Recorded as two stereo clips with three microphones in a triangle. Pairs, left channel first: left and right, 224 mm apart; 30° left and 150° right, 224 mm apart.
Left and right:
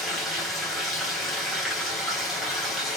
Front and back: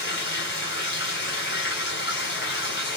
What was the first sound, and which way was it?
Running water, straight ahead.